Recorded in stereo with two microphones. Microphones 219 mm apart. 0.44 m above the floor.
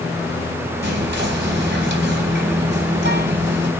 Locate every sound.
0.8 s whispering: 55° right (ahead or behind), 3 m